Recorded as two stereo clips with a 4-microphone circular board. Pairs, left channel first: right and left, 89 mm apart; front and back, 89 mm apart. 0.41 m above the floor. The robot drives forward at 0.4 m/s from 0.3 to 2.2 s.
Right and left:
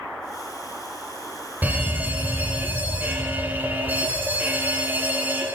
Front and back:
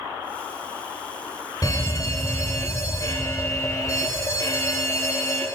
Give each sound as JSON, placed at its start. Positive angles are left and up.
{"t": 1.6, "sound": "a fire alarm", "azimuth_deg": 30, "distance_m": 2.5}